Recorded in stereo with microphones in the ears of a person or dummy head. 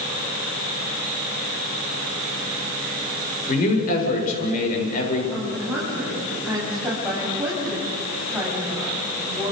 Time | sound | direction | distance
3.5 | a man speaking | 45° left (ahead or behind) | 7.5 m
5.3 | a woman speaking | 10° right (ahead or behind) | 9 m